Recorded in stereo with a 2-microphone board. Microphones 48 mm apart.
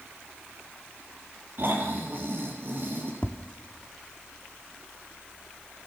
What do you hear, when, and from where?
1.6 s snoring: 45° right (ahead or behind), 4 m
3.2 s tapping: 25° left (ahead or behind), 1.2 m